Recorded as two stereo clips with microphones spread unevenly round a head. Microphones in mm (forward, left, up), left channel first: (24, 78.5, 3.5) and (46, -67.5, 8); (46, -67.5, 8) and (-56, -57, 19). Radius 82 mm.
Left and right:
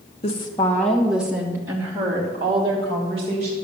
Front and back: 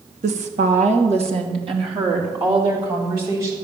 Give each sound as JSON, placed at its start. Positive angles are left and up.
{"t": 0.2, "sound": "a woman speaking", "azimuth_deg": 155, "distance_m": 1.5}